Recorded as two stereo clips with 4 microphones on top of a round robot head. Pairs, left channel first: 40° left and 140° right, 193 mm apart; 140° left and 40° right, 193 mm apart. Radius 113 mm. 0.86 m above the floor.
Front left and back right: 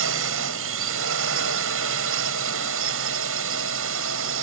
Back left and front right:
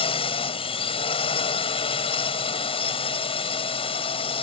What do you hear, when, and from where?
0.0 s a drone: 155° right